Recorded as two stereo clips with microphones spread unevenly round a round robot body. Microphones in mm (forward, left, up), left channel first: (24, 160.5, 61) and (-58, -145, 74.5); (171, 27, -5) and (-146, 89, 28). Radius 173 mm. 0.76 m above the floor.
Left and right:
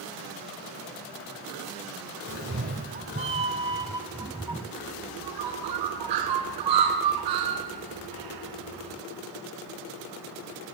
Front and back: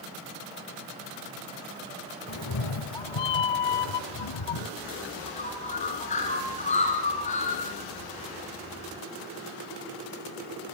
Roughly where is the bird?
Right.